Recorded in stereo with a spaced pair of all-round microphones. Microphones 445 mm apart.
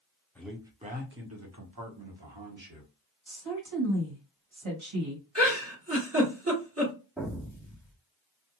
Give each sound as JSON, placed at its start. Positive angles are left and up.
{"t": 0.3, "sound": "a man speaking", "side_deg": 5, "distance_m": 0.9}
{"t": 3.3, "sound": "a woman speaking", "side_deg": -80, "distance_m": 1.3}
{"t": 5.3, "sound": "a giggle", "side_deg": -30, "distance_m": 1.3}
{"t": 7.2, "sound": "an explosion", "side_deg": 0, "distance_m": 1.0}